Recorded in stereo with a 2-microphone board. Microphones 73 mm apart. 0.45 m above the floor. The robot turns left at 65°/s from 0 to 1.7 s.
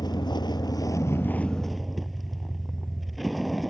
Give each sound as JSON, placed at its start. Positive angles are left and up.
{"t": 0.0, "sound": "a vehicle", "azimuth_deg": 110}